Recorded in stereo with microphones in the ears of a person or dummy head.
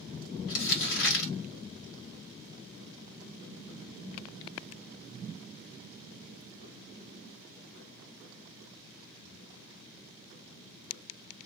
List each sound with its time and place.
0.5 s crumpling: 60° left (ahead or behind), 1.4 m